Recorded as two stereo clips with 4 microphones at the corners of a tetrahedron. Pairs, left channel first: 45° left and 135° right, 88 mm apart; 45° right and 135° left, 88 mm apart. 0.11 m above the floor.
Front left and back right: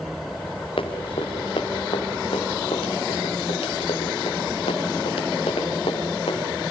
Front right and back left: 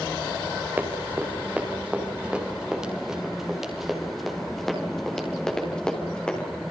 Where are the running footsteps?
65° left, 5.5 m; by 6.5 s 35° left, 7 m.